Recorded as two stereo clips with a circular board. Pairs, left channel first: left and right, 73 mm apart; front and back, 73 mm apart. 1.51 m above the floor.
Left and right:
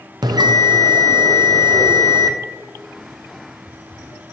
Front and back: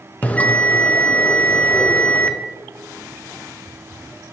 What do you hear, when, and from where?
0.2 s a bell: 70° right, 0.6 m